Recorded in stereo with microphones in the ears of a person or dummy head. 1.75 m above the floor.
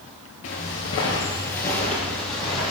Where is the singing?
No singing in this recording.